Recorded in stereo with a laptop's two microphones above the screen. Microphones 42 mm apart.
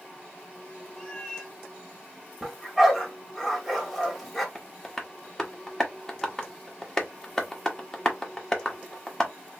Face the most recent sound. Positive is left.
turn(degrees=15)  # may be behind; listen again after turning